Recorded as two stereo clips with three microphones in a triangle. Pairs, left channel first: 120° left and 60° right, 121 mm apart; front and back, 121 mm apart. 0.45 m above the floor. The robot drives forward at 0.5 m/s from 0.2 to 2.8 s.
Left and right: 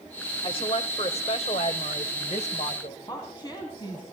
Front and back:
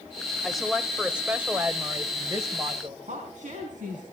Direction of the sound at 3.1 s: 175° left.